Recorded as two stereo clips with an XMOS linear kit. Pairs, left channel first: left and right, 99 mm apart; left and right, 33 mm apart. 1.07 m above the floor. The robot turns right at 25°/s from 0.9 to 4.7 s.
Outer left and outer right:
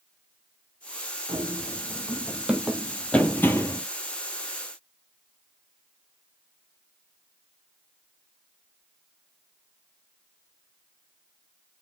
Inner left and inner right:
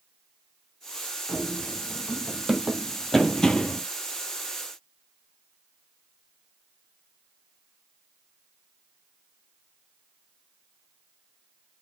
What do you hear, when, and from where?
1.3 s running footsteps: 45° right (ahead or behind), 2.5 m; by 3.8 s 30° left (ahead or behind), 1.2 m